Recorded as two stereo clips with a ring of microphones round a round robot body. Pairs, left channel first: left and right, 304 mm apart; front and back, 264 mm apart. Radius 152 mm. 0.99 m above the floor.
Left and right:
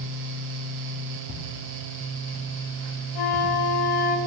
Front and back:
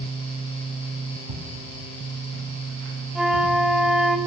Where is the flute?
95° left, 1.3 m.